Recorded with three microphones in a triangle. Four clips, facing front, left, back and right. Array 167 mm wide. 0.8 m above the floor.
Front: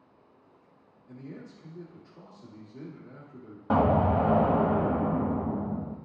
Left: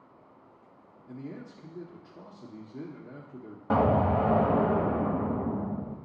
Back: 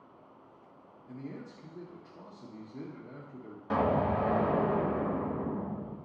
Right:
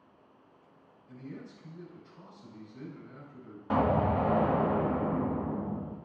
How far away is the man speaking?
About 1.4 m.